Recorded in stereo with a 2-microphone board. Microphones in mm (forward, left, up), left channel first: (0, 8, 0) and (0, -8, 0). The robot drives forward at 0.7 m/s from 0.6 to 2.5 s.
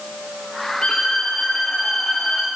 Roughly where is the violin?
Left.